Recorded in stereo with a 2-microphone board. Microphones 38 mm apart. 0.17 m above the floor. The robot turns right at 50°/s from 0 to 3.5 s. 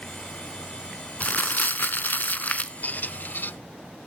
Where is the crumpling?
55° left, 0.8 m; by 2.7 s 130° left, 0.8 m.